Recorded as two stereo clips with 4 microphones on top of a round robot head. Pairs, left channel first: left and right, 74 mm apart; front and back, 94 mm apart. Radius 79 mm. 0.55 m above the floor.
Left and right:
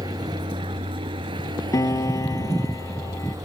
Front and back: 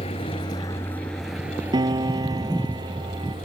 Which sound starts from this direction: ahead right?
A vehicle, at 0.0 s.